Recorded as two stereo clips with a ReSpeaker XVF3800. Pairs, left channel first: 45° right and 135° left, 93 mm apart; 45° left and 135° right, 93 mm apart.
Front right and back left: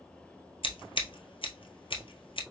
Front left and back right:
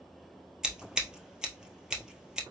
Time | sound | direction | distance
0.6 | scissors | 55° right | 1.4 m